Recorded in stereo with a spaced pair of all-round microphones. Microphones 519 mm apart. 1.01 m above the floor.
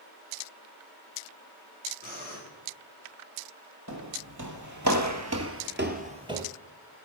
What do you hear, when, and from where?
2.0 s breathing: 15° right (ahead or behind), 4.5 m
3.9 s footsteps: 35° right (ahead or behind), 1.9 m; by 6.4 s 5° right (ahead or behind), 1.2 m